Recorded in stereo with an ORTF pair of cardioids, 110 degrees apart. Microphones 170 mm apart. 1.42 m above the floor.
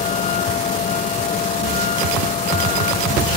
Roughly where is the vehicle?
Ahead left.